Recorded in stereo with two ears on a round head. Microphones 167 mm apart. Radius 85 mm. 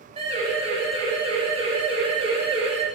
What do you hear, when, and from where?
0.2 s a siren: 30° right (ahead or behind), 7.5 m